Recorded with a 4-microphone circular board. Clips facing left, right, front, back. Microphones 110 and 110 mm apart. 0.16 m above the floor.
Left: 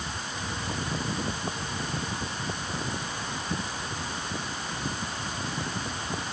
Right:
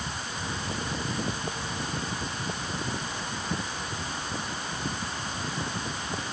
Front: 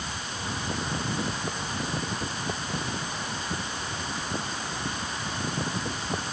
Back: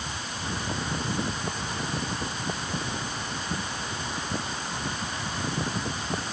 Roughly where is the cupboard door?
I don't hear a cupboard door.